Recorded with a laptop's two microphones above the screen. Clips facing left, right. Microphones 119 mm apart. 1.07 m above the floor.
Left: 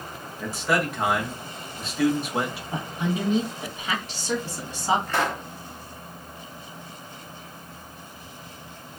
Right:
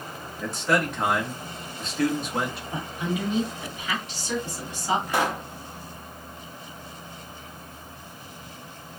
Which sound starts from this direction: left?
A woman speaking, at 2.7 s.